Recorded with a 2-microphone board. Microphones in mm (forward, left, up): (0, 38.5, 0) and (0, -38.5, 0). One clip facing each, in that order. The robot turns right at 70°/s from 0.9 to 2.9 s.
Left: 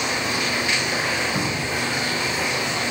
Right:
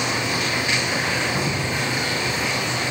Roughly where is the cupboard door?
Behind.